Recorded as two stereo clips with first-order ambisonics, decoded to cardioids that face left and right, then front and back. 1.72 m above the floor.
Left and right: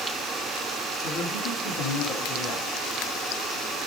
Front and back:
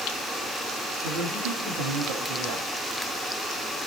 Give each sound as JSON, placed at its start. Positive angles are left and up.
{"t": 1.0, "sound": "a man speaking", "azimuth_deg": 155, "distance_m": 8.5}